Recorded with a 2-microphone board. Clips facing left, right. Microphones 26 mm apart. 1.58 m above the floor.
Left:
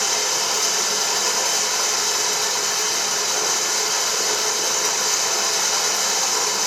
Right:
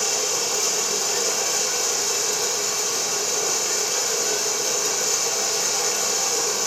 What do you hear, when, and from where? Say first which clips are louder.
0.0 s running water: left 3 dB; 65° left (ahead or behind), 1.1 m